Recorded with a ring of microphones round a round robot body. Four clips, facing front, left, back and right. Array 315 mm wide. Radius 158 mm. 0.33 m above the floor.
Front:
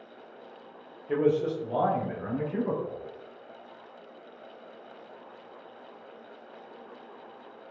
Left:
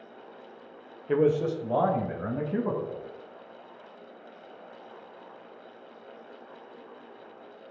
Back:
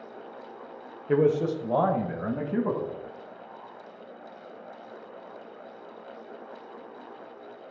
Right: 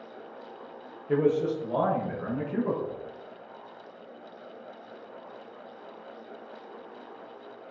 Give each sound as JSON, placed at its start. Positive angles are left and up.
{"t": 1.1, "sound": "a man speaking", "azimuth_deg": 145, "distance_m": 1.1}